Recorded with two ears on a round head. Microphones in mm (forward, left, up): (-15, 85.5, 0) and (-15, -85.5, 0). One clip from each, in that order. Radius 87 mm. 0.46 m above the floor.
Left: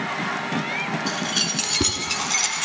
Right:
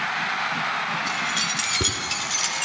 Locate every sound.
1.1 s keys jangling: 25° left (ahead or behind), 3.5 m; by 2.6 s 30° left (ahead or behind), 2.5 m